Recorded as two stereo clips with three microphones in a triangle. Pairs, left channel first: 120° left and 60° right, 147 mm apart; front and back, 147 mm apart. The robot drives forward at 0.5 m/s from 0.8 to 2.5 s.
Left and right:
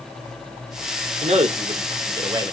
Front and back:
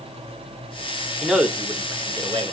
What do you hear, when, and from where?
1.2 s a man speaking: 90° right, 1.0 m; by 2.5 s 125° right, 1.2 m